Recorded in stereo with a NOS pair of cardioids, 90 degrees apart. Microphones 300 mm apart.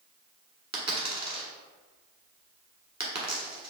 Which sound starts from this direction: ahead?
A dropped coin, at 0.7 s.